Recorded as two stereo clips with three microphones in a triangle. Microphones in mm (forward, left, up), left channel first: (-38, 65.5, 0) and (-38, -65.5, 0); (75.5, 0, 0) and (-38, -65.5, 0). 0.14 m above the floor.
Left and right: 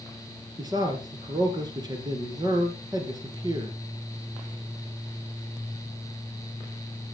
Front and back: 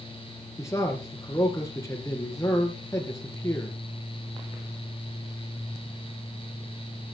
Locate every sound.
0.6 s a man speaking: 35° right, 3 m